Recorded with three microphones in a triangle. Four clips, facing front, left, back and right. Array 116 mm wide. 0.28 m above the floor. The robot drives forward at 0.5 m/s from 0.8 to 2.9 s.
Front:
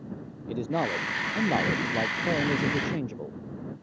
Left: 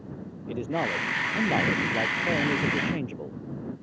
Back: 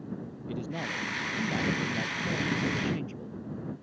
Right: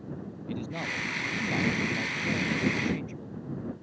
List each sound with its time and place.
0.5 s a man speaking: 35° left; by 3.4 s 40° left